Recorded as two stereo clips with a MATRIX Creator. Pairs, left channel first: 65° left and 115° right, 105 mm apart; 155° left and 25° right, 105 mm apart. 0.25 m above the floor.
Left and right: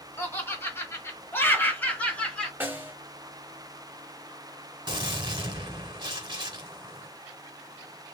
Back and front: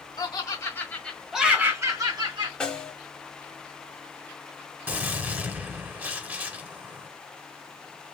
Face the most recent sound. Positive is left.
turn(degrees=-90)